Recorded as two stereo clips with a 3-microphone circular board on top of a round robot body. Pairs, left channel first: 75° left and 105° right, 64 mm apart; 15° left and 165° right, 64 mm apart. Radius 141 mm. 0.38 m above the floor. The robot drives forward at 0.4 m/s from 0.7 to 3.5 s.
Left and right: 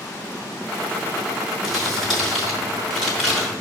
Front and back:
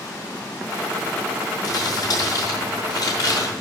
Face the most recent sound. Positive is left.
turn(degrees=-20)